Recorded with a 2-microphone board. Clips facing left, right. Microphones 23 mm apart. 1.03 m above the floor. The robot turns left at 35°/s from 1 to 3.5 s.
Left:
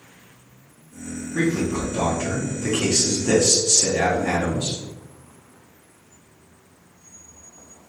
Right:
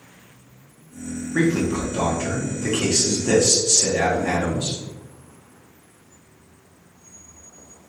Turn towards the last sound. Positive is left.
turn(degrees=165)